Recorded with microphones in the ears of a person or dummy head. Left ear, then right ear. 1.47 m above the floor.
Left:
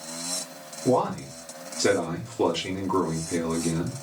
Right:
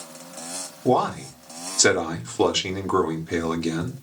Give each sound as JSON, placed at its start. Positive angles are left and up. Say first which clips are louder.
{"t": 0.8, "sound": "a man speaking", "louder": "right 2 dB", "side_deg": -50, "distance_m": 1.0}